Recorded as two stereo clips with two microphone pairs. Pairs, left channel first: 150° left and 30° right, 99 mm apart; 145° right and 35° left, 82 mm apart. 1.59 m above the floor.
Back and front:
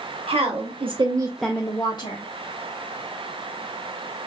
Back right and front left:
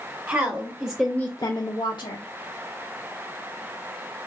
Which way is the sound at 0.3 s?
30° right.